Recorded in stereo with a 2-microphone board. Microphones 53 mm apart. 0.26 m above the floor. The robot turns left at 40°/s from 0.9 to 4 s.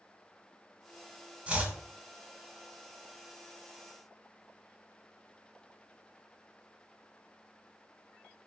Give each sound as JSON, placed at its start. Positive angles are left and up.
{"t": 1.5, "sound": "chopping", "side_deg": -25, "distance_m": 0.6}